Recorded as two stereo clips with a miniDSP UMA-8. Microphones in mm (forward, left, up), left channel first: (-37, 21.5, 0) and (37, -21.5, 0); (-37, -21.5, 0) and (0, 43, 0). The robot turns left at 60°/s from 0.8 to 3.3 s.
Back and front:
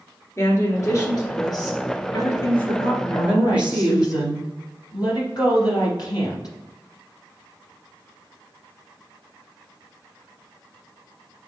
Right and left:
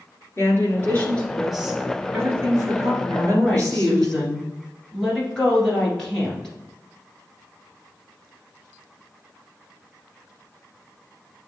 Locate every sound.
0.4 s a woman speaking: 165° right, 1.8 m; by 4.1 s 45° left, 1.8 m
3.1 s a woman speaking: 165° left, 2 m; by 6.5 s 155° left, 2 m